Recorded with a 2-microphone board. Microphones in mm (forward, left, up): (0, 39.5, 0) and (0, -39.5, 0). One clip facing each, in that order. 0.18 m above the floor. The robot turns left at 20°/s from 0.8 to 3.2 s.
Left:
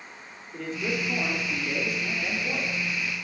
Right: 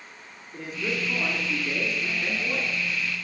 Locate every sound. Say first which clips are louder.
0.5 s a man speaking: left 1 dB; 10° right, 2.5 m; by 2.7 s 50° right, 2.5 m